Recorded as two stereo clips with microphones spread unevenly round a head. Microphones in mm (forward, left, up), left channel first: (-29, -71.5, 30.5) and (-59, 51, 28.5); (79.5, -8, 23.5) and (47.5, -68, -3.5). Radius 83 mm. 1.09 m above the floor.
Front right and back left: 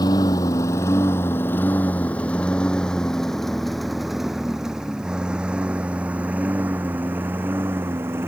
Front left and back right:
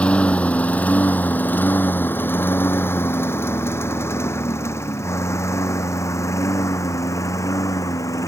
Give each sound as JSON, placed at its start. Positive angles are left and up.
{"t": 0.0, "sound": "a lawn mower", "azimuth_deg": -5}